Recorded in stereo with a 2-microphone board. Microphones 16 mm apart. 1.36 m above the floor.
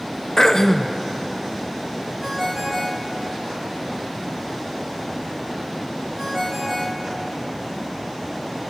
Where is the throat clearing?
40° left (ahead or behind), 0.7 m.